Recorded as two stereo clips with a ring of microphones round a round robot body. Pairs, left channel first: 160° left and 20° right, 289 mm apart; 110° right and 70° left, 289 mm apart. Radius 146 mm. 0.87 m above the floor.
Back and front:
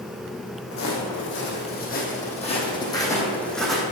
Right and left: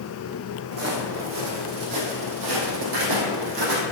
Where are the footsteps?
110° left, 2.5 m; by 3.8 s 65° left, 2.5 m.